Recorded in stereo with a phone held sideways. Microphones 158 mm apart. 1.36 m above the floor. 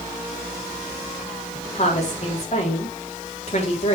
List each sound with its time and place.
1.8 s a woman speaking: 45° left (ahead or behind), 3.5 m